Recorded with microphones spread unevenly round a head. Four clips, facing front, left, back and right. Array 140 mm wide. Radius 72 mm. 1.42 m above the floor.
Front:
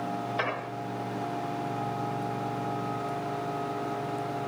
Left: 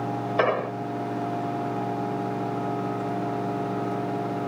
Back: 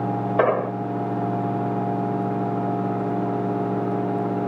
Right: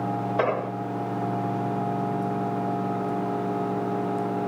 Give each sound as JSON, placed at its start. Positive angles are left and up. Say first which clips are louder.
{"t": 0.4, "sound": "an explosion", "louder": "left 3 dB, back 12 dB", "azimuth_deg": 175}